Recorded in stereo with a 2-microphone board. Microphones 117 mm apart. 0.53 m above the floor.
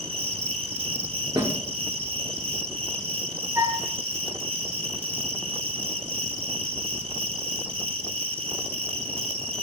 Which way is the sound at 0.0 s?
55° right (ahead or behind).